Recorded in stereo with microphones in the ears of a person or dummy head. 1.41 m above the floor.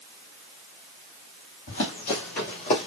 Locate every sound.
1.7 s running footsteps: 50° left (ahead or behind), 2.5 m; by 2.9 s 35° left (ahead or behind), 1.9 m